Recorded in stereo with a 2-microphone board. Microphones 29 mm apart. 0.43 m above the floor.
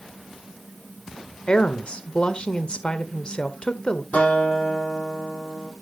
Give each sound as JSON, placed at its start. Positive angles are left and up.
{"t": 1.5, "sound": "a woman speaking", "side_deg": 40, "distance_m": 1.5}
{"t": 4.1, "sound": "a guitar", "side_deg": 60, "distance_m": 9.5}